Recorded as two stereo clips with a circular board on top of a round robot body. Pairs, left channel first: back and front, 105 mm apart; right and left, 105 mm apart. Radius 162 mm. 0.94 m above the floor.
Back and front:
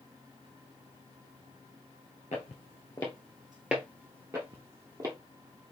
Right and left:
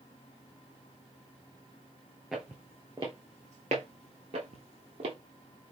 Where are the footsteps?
Straight behind, 1.0 m; by 5.2 s 55° left, 1.6 m.